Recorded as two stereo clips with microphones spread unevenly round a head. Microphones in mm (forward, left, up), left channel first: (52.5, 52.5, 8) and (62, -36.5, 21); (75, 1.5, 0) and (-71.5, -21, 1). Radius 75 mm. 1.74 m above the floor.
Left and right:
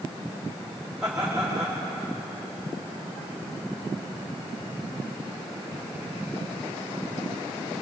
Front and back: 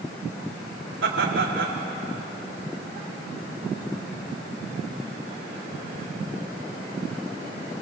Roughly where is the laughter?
Behind.